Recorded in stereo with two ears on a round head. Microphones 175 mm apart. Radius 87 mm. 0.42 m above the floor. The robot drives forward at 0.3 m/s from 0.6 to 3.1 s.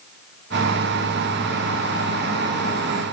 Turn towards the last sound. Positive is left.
No sound to turn to.